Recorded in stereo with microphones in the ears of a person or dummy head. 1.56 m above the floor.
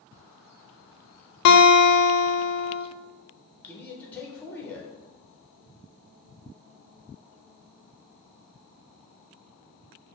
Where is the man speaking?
20° left (ahead or behind), 1.0 m.